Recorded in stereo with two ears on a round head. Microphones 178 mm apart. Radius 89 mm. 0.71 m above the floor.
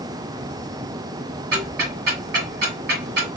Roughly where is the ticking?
Right.